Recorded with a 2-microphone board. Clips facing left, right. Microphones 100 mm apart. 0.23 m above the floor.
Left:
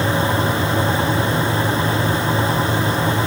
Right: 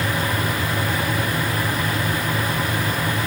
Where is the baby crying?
No baby crying in this recording.